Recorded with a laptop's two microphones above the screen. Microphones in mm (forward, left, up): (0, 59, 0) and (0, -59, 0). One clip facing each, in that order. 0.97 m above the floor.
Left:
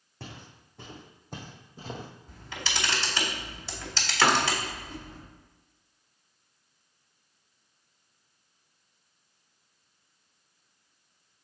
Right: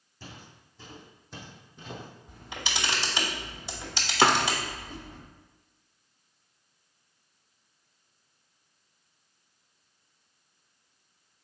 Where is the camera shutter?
15° right (ahead or behind), 2.5 m.